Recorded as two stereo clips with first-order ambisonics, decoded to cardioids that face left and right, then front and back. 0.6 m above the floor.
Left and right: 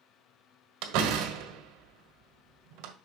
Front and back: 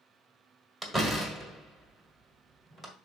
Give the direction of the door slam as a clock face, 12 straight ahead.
3 o'clock.